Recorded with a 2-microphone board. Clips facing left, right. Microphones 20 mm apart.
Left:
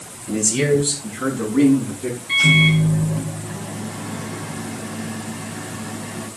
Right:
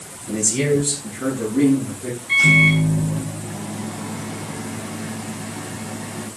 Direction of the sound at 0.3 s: 15° left (ahead or behind).